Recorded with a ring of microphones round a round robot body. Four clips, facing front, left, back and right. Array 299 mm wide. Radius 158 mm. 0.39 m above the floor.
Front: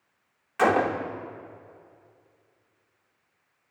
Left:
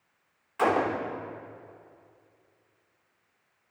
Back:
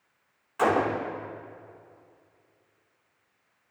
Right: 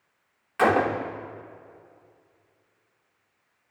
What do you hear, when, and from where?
0.6 s a gunshot: 50° right, 0.9 m